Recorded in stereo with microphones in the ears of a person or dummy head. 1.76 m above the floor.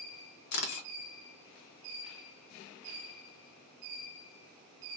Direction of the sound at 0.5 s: 55° left (ahead or behind).